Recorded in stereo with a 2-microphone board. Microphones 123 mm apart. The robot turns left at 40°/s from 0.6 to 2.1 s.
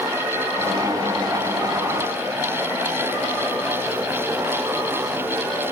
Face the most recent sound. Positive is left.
No sound to turn to.